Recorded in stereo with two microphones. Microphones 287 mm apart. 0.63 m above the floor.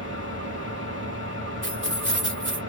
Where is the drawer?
No drawer in this recording.